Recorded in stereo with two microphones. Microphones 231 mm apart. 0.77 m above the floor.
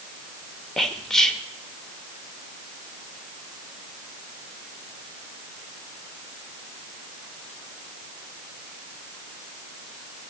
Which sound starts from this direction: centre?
Whispering, at 0.8 s.